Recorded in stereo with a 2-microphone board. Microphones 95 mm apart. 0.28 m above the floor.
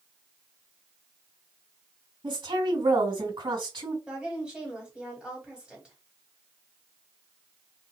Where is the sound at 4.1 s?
10° right (ahead or behind), 1.5 m.